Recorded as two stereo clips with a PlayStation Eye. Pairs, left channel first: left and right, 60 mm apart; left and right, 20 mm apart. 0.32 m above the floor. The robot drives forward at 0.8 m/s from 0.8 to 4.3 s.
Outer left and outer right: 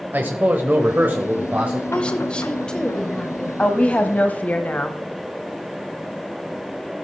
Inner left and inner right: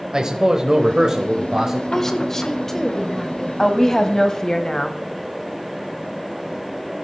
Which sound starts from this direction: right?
A man speaking, at 0.1 s.